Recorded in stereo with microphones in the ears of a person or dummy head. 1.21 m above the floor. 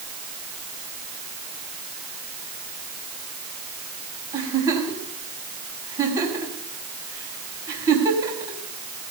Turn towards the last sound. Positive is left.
turn(degrees=-20)  # may be behind; listen again after turning